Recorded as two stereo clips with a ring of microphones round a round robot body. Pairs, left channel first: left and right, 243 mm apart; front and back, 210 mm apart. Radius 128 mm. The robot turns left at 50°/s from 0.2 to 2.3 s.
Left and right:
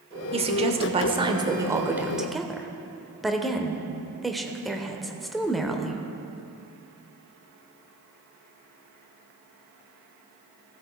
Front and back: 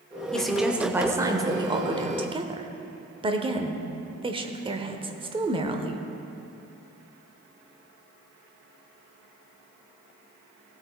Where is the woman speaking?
80° right, 0.9 m; by 6.0 s straight behind, 0.9 m.